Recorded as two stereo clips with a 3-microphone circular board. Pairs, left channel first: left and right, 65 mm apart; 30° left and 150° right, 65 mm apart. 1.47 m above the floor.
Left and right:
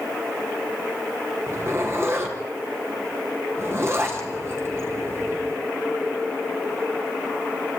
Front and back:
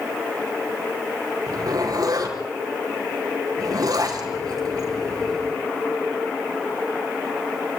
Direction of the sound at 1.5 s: 140° right.